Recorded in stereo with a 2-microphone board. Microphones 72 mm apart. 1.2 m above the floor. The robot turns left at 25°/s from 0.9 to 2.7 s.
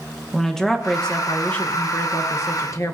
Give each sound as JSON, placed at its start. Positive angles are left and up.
{"t": 0.3, "sound": "a woman speaking", "azimuth_deg": 175, "distance_m": 1.2}